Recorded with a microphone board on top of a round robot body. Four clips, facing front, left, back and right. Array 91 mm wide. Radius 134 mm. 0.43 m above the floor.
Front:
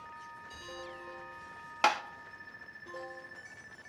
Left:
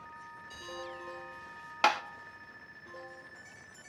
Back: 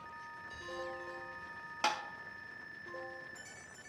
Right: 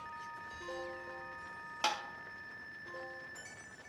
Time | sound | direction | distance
1.8 | tapping | 55° left | 0.8 m